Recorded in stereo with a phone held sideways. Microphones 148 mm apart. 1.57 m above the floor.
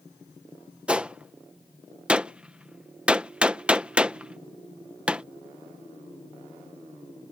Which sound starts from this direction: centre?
A gunshot, at 0.9 s.